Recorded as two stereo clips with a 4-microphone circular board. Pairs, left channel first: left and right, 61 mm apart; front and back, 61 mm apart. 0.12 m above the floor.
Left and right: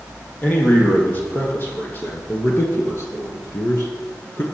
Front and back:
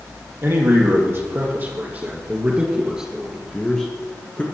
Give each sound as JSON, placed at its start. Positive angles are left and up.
{"t": 0.4, "sound": "a man speaking", "azimuth_deg": 145, "distance_m": 3.5}